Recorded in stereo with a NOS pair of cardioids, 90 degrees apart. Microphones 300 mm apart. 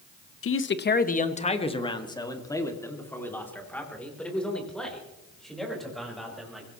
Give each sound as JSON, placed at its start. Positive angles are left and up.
{"t": 0.4, "sound": "a man speaking", "azimuth_deg": 45, "distance_m": 1.0}